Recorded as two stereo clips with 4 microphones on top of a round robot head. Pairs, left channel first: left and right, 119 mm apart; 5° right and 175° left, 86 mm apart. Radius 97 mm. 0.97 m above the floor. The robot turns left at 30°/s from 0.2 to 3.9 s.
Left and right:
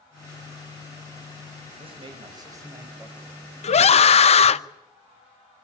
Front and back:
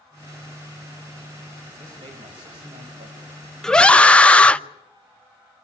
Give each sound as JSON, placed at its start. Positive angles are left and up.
{"t": 1.8, "sound": "a man speaking", "azimuth_deg": -125, "distance_m": 6.0}
{"t": 3.6, "sound": "a scream", "azimuth_deg": 80, "distance_m": 0.8}